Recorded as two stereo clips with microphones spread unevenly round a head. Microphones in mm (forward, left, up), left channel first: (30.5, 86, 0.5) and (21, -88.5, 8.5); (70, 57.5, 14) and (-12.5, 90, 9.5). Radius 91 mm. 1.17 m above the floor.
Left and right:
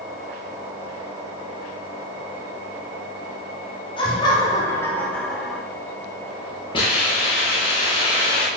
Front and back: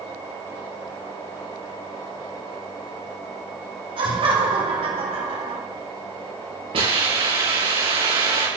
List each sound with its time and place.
4.0 s laughter: 150° left, 5 m; by 5.6 s straight behind, 4 m
6.7 s a hiss: 150° left, 9 m